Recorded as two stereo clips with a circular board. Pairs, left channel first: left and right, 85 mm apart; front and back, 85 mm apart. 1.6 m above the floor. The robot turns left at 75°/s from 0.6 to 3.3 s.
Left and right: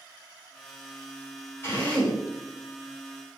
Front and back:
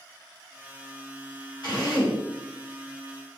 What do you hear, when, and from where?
1.6 s a drill: 35° left, 4 m; by 2.2 s 10° right, 4 m